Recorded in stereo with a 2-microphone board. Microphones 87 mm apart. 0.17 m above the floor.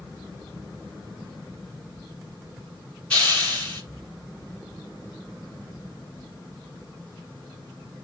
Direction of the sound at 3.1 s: 15° left (ahead or behind).